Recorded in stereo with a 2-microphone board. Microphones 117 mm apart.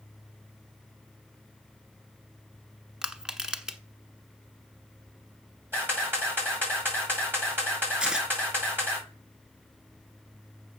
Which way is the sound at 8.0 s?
10° right (ahead or behind).